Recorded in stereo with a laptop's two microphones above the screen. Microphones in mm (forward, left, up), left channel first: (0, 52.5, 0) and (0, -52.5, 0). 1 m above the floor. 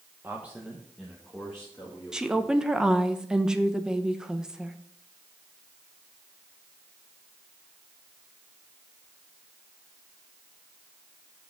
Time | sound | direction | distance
0.2 | a man speaking | 20° right (ahead or behind) | 0.8 m
2.1 | a woman speaking | 5° right (ahead or behind) | 0.6 m